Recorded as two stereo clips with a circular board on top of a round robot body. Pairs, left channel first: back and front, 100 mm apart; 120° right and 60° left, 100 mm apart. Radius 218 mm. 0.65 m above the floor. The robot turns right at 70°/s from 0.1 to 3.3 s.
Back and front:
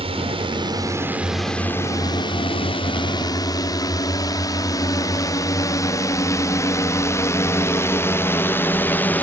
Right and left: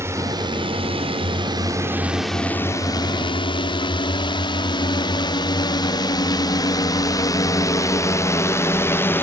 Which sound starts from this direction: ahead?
A drone, at 0.0 s.